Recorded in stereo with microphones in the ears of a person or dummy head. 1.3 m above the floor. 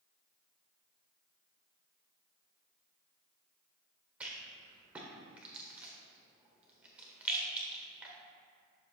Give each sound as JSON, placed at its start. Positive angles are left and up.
{"t": 4.2, "sound": "a rattle", "side_deg": -10, "distance_m": 1.4}